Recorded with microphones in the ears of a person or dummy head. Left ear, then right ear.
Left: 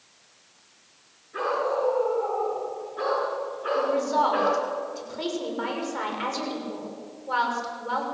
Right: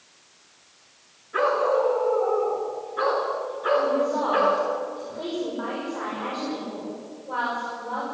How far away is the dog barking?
About 6.5 m.